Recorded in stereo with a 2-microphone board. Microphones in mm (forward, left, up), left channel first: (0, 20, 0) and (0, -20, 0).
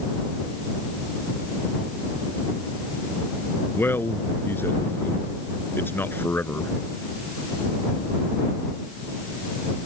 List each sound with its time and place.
3.7 s a man speaking: 65° left (ahead or behind)